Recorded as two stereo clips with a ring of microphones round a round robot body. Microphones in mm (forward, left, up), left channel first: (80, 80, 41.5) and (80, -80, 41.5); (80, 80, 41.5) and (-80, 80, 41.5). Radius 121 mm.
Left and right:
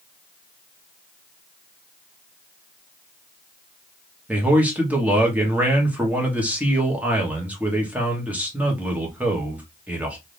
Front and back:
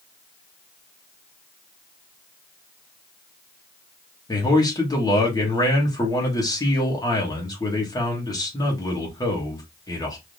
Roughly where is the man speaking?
Ahead right.